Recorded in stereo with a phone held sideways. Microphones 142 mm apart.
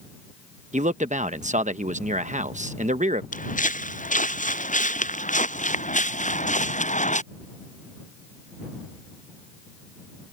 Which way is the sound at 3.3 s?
65° left (ahead or behind).